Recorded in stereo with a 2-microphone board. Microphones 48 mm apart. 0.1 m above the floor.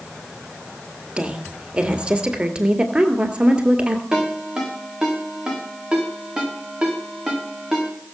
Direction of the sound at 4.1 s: 10° right (ahead or behind).